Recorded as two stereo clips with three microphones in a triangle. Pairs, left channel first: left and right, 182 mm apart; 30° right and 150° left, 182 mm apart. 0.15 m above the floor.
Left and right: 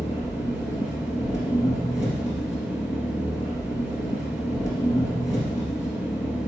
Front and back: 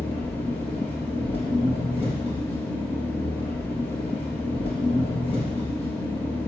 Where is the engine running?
25° left, 1.8 m.